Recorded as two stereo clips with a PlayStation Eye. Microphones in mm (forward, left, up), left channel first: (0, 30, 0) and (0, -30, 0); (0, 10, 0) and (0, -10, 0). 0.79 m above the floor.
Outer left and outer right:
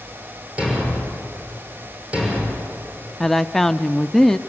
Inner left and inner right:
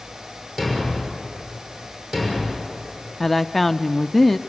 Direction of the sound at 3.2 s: 5° left (ahead or behind).